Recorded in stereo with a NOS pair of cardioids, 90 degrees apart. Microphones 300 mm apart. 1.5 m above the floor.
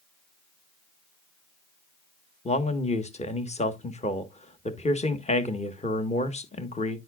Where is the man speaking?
20° left, 1.5 m.